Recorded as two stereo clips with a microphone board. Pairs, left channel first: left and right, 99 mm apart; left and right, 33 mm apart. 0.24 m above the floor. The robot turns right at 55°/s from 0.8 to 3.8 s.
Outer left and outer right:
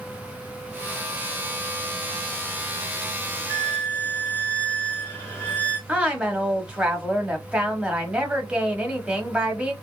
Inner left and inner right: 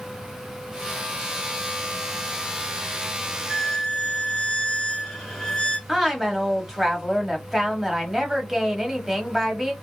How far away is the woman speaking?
About 1.1 m.